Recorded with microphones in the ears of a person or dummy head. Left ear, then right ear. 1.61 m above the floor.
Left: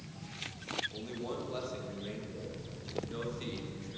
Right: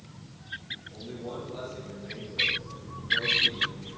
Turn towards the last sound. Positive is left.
turn(degrees=70)  # may be behind; listen again after turning